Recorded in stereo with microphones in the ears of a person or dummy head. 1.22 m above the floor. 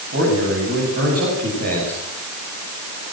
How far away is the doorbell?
No doorbell in this recording.